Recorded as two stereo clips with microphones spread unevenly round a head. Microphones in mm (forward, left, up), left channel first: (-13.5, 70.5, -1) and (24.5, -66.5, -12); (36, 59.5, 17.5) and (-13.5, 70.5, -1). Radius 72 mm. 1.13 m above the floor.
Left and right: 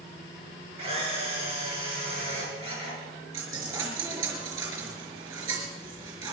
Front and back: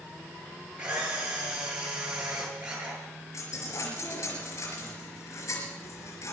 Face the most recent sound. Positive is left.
turn(degrees=-10)